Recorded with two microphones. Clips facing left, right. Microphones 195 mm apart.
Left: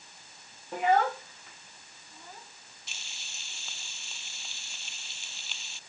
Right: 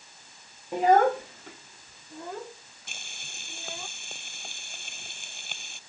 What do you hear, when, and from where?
0.7 s a child speaking: 15° right (ahead or behind); by 3.9 s 85° right
2.9 s frying: 55° right (ahead or behind)